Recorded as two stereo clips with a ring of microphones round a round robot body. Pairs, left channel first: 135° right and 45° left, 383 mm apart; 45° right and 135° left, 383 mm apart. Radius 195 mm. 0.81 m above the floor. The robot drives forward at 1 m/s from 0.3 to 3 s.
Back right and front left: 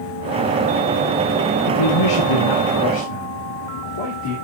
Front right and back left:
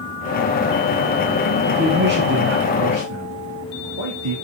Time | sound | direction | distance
1.7 | a man speaking | 150° right | 0.7 m